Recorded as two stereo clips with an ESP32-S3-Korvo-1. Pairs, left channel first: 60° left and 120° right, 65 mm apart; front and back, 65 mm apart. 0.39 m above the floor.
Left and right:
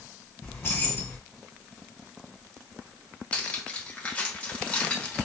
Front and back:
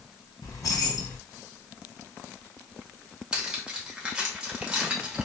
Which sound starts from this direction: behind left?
Cutlery clinking, at 3.3 s.